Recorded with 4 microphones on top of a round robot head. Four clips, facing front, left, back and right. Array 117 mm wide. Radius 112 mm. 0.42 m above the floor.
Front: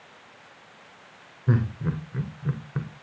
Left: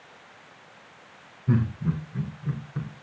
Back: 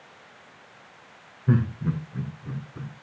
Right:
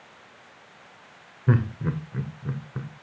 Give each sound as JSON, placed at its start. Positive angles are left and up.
{"t": 1.5, "sound": "laughter", "azimuth_deg": -75, "distance_m": 1.8}